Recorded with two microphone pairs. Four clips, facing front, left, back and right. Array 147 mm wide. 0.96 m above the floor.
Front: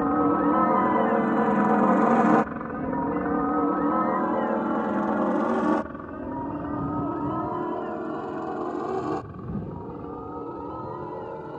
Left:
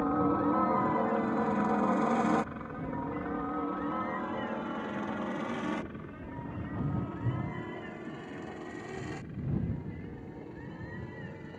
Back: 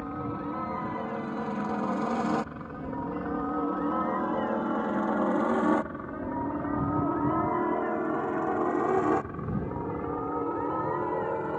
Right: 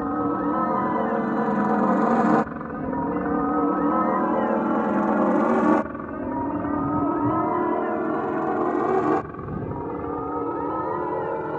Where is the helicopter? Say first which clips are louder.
Right 4 dB, front 12 dB; 15° right; by 11.6 s 110° right.